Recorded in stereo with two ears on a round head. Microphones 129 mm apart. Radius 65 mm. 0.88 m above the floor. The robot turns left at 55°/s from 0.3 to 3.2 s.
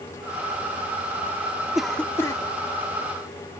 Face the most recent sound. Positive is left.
turn(degrees=105)